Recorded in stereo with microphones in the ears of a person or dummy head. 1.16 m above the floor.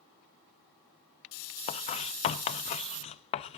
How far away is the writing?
About 0.6 m.